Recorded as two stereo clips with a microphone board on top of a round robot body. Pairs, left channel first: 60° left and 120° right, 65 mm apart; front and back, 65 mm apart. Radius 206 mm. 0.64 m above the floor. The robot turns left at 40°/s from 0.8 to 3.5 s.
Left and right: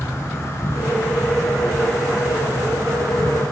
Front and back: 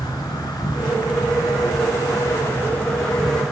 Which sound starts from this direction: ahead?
An insect, at 0.0 s.